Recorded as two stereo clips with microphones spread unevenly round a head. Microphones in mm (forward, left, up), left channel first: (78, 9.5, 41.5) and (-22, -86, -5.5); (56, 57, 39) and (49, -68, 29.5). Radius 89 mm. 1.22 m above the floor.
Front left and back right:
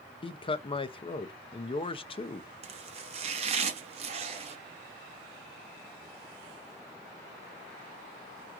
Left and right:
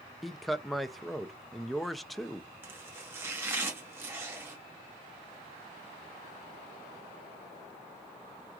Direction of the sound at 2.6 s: 165° right.